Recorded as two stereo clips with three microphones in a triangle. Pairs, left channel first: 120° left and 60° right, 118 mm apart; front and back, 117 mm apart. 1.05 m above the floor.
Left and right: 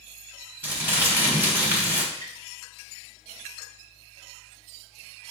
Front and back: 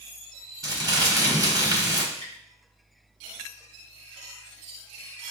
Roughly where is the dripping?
Behind.